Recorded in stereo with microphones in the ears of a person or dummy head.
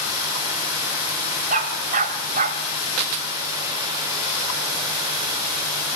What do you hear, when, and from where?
1.5 s a dog barking: 40° right (ahead or behind), 1.8 m